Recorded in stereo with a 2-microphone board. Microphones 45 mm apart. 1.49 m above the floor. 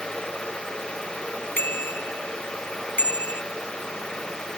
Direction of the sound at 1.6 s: 45° left (ahead or behind).